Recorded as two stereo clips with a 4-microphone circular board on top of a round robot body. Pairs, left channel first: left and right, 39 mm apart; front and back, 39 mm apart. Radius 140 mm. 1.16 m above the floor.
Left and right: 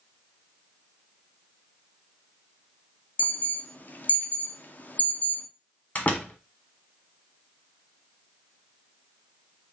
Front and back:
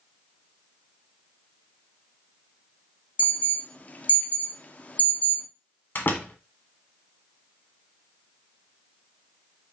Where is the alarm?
45° left, 0.9 m.